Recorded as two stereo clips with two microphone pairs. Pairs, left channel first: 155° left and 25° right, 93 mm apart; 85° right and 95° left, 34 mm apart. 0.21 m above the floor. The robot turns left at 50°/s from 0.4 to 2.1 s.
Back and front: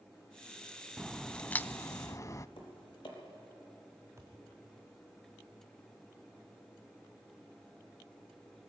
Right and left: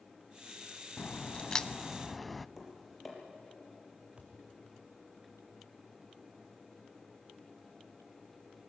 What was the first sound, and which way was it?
A crack, 110° right.